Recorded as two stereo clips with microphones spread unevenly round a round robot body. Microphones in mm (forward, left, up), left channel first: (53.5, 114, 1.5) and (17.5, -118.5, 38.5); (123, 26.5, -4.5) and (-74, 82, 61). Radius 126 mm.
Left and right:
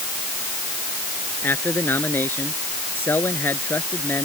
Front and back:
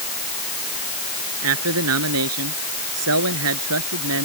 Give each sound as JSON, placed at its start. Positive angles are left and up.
{"t": 1.4, "sound": "a man speaking", "azimuth_deg": 165}